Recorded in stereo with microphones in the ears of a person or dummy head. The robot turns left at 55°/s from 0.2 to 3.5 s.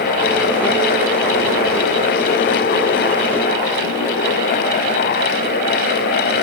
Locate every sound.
Only background noise.